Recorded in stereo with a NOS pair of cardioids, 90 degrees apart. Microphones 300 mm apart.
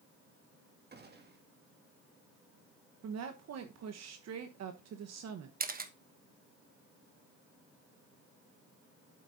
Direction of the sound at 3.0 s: 60° right.